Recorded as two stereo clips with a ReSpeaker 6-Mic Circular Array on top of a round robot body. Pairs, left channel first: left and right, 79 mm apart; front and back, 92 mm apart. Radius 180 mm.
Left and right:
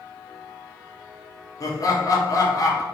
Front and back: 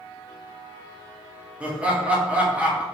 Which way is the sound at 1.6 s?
110° left.